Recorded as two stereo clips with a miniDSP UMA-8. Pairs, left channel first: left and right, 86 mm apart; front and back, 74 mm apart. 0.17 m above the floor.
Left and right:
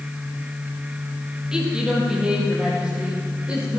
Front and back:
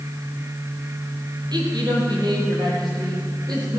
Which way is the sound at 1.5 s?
170° right.